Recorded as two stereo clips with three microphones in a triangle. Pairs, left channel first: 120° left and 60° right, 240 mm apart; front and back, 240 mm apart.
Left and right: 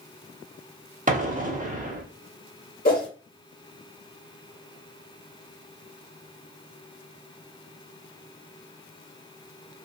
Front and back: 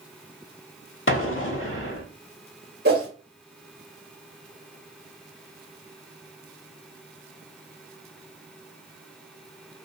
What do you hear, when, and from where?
1.1 s an explosion: 10° right, 0.7 m
2.9 s a whoosh: 155° left, 1.4 m